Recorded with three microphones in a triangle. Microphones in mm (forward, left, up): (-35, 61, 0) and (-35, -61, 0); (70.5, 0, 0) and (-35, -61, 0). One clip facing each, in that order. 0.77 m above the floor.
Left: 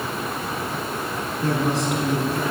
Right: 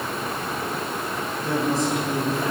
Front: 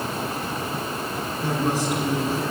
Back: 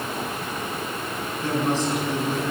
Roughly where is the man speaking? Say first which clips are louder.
Left 1 dB, back 1 dB; left.